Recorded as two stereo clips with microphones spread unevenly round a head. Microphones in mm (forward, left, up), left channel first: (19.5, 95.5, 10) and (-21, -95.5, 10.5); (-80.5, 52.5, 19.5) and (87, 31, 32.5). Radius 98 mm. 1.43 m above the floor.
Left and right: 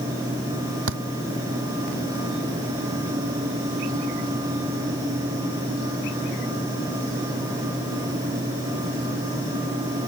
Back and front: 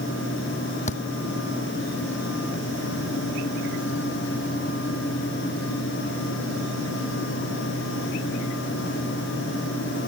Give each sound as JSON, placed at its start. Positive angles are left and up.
{"t": 0.9, "sound": "a thud", "azimuth_deg": -130}